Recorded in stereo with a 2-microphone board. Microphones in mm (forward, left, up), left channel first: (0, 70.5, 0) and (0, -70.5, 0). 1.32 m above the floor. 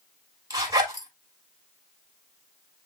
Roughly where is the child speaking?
No child speaking in this recording.